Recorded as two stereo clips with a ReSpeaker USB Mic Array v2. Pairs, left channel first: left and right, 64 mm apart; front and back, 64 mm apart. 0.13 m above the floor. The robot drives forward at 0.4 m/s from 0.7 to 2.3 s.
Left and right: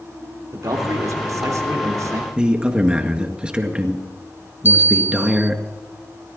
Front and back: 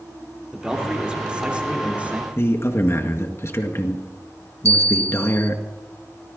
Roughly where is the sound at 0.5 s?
Right.